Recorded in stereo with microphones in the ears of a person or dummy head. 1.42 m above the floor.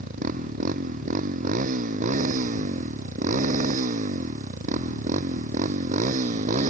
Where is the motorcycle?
45° right (ahead or behind); by 6.7 s 40° right (ahead or behind).